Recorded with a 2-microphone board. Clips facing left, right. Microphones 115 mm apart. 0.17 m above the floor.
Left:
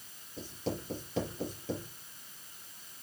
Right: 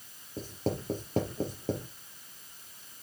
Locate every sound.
0.4 s writing: 45° right (ahead or behind), 4 m